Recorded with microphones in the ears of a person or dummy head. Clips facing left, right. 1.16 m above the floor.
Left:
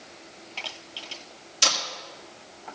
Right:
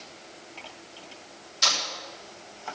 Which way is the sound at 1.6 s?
40° left (ahead or behind).